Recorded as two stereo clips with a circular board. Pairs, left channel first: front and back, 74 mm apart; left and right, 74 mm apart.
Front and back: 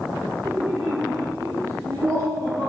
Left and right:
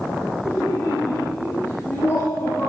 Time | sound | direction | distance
0.5 | laughter | 145° left | 5.5 m